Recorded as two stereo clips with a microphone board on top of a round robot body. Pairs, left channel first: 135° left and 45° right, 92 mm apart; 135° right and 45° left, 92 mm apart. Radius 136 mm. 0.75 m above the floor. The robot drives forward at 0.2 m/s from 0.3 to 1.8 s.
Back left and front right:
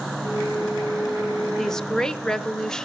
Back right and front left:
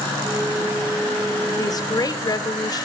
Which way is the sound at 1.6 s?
140° right.